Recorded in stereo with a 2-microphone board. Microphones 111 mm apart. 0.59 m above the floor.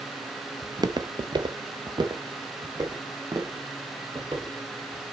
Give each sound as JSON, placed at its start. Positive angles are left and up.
{"t": 0.6, "sound": "footsteps", "side_deg": -30, "distance_m": 0.6}